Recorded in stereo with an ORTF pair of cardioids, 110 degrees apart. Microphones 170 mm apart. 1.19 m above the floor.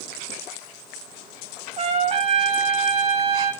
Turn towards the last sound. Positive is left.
turn(degrees=-40)